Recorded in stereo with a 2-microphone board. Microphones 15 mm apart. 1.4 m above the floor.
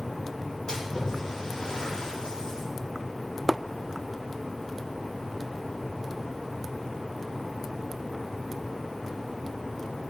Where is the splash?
65° left (ahead or behind), 3.5 m.